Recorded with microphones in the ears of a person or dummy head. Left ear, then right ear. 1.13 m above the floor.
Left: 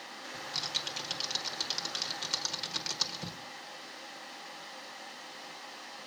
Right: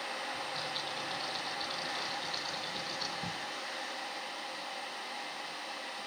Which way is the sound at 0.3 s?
60° left (ahead or behind).